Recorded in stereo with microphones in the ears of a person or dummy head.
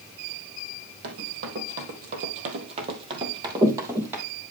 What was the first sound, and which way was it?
Running footsteps, 60° right (ahead or behind).